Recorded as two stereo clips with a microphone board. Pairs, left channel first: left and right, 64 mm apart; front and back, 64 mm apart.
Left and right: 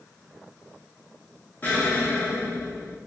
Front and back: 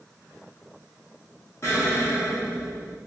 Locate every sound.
1.6 s an explosion: 35° left, 0.7 m